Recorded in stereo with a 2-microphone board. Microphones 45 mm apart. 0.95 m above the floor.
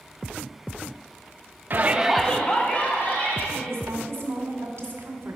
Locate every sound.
1.7 s a shout: 45° right (ahead or behind), 0.9 m; by 3.4 s 45° left (ahead or behind), 2.5 m
3.5 s a woman speaking: 60° right (ahead or behind), 2.5 m